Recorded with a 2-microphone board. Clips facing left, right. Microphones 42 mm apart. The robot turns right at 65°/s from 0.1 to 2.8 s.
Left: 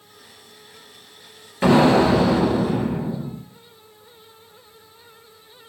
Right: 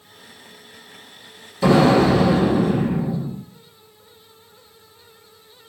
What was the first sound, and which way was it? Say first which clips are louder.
An explosion: even; 140° left.